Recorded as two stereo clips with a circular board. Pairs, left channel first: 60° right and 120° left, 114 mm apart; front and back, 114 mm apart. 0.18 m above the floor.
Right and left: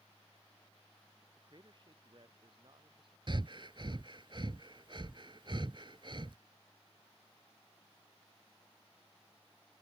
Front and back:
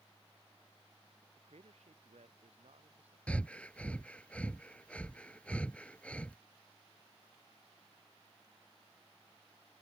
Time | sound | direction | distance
1.4 | a man speaking | 165° left | ?
3.3 | breathing | 80° left | ?